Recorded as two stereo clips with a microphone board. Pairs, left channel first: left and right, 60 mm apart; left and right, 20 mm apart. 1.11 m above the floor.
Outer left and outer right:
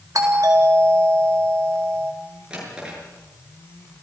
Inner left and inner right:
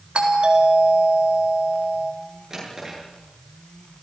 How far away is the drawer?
About 8.5 m.